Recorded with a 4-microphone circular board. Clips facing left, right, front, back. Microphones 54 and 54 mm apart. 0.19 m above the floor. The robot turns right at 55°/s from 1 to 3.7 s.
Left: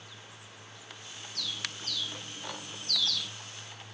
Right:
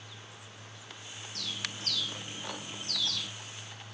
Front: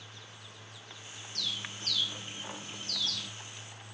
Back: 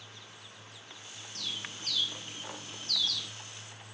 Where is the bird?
125° right, 2.5 m; by 3.3 s 20° right, 2.5 m.